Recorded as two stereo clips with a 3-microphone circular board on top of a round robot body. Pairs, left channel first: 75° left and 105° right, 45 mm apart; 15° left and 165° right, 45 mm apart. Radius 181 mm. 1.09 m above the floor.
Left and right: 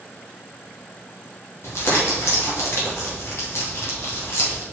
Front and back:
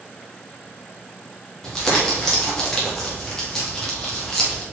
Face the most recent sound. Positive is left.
turn(degrees=100)